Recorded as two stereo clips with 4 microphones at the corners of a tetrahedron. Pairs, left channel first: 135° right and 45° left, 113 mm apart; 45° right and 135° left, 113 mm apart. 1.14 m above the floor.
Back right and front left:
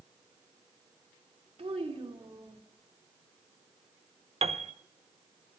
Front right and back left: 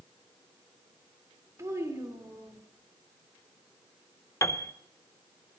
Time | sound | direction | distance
1.6 | a child speaking | 70° left | 2 m
4.4 | a piano | 20° left | 0.6 m